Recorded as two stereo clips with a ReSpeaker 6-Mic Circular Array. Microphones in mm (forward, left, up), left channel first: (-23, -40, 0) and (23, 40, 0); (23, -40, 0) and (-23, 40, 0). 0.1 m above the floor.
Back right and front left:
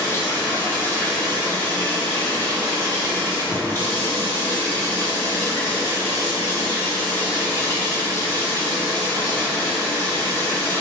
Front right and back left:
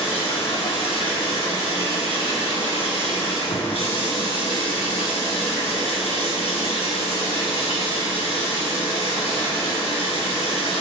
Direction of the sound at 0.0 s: 55° right.